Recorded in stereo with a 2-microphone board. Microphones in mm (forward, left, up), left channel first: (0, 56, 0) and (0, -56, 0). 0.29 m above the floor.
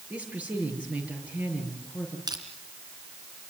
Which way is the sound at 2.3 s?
35° right (ahead or behind).